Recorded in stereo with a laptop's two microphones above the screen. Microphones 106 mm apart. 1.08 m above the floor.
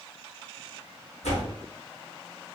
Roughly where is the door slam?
Left.